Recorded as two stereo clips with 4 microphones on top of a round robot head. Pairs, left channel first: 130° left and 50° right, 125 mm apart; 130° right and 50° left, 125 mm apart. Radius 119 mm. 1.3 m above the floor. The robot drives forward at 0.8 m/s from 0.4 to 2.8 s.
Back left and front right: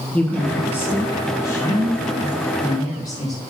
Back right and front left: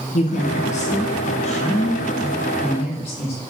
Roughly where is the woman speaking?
Behind right.